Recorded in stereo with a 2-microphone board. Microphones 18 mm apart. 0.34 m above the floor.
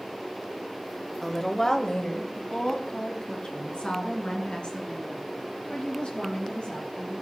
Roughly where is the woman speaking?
Centre.